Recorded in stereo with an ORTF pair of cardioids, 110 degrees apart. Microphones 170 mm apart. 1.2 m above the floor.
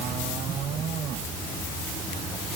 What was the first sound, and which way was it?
Only background noise.